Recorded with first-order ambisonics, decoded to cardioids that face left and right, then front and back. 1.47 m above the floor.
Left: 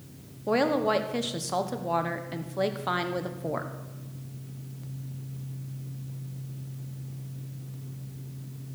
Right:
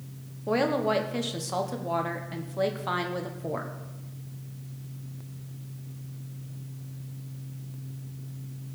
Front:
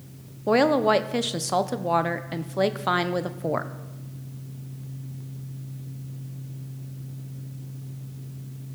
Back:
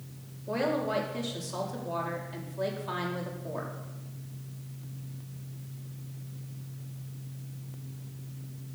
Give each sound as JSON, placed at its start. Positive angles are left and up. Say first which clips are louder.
{"t": 0.5, "sound": "a woman speaking", "louder": "left 1 dB, front 10 dB", "azimuth_deg": 5, "distance_m": 0.9}